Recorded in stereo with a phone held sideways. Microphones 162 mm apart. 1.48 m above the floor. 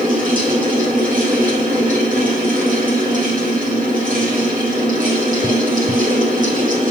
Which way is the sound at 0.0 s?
60° right (ahead or behind).